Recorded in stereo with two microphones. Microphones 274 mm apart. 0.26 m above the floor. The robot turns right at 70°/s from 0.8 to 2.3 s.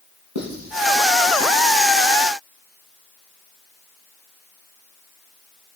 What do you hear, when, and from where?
0.3 s writing: 80° right, 4.5 m; by 0.9 s 75° right (ahead or behind), 4.5 m